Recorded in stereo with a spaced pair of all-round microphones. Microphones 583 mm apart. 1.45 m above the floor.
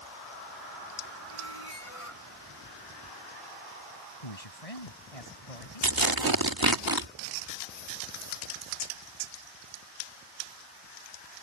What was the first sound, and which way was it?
A squeak, 65° left (ahead or behind).